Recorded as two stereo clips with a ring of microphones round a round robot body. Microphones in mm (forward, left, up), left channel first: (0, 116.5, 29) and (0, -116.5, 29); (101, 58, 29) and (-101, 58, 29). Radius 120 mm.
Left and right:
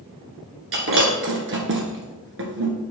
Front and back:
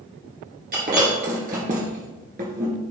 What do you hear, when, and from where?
0.7 s breaking glass: 125° right, 1.7 m